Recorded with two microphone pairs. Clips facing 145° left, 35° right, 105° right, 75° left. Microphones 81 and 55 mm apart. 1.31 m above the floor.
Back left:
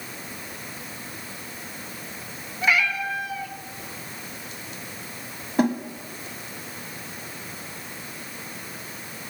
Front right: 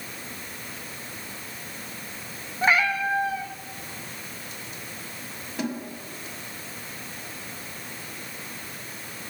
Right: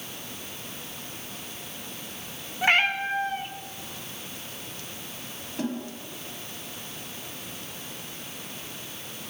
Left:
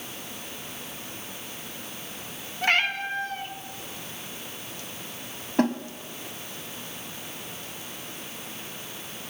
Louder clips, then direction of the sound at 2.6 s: Front right 1 dB, right 2 dB; 40° right.